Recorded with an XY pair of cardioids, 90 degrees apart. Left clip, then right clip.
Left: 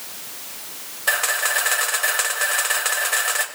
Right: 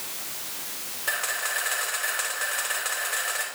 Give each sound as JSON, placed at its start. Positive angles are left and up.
{"t": 1.1, "sound": "a camera shutter", "azimuth_deg": 60, "distance_m": 6.0}